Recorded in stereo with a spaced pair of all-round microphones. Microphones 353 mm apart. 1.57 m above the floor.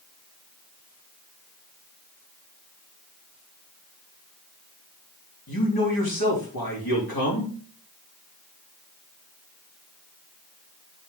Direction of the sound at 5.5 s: 85° left.